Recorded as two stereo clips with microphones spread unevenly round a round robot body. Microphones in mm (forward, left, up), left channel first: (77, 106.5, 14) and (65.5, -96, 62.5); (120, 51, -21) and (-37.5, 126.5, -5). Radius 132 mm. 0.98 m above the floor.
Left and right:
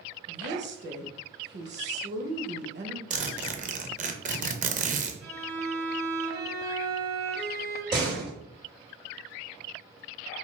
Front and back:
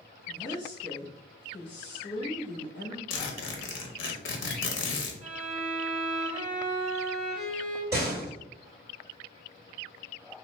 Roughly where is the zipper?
Ahead right.